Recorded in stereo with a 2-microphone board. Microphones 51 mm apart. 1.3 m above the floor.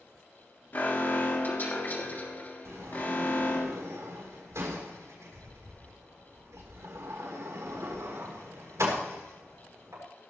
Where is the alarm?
40° left (ahead or behind), 3 m.